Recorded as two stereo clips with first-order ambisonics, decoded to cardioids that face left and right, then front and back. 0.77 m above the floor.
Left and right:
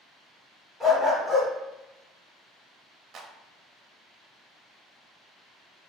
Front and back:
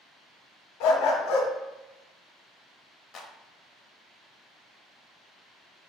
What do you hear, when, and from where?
0.8 s a dog barking: 10° left, 1.3 m
3.1 s a clap: 35° right, 0.7 m